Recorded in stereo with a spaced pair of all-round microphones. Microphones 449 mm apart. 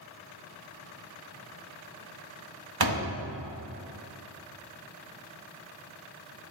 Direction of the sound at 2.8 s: 55° right (ahead or behind).